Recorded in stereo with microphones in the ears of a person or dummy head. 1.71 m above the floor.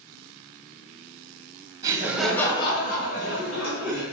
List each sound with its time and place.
1.8 s laughter: 25° right (ahead or behind), 1.1 m; by 4.0 s 80° left, 2 m